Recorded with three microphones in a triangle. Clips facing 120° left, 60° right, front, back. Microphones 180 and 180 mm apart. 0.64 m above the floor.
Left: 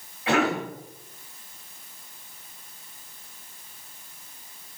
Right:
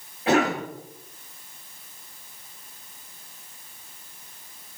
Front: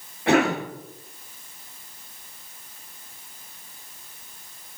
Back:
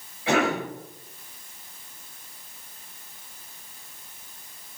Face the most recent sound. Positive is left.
turn(degrees=-15)